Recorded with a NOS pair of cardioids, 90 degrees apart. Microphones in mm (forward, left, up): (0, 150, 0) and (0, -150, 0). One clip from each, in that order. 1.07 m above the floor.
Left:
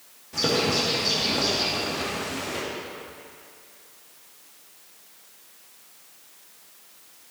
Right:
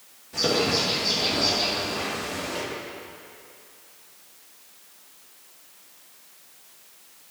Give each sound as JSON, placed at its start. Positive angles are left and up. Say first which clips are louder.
{"t": 0.3, "sound": "a bird", "louder": "even", "azimuth_deg": 10, "distance_m": 2.5}